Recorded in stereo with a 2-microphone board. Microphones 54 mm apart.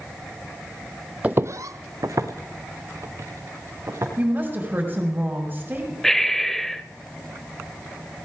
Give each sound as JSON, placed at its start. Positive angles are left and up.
{"t": 1.2, "sound": "footsteps", "side_deg": -20, "distance_m": 0.6}
{"t": 4.2, "sound": "a woman speaking", "side_deg": -30, "distance_m": 4.5}
{"t": 6.0, "sound": "breathing", "side_deg": 5, "distance_m": 0.5}